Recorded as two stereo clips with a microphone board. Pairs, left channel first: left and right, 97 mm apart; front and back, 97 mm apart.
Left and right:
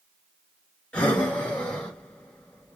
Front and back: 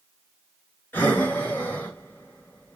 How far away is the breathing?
About 1.4 m.